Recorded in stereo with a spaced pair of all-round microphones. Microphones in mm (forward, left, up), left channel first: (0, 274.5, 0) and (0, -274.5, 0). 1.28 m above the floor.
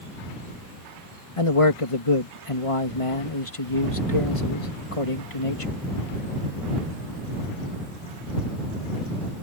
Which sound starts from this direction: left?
A man speaking, at 1.4 s.